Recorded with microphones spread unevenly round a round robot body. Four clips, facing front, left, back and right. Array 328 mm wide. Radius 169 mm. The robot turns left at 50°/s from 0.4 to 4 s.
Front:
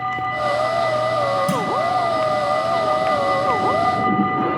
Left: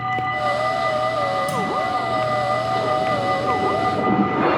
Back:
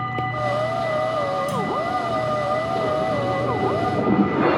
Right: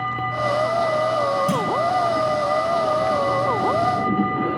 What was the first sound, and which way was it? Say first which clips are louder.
A clunk: right 1 dB, front 3 dB; 30° right.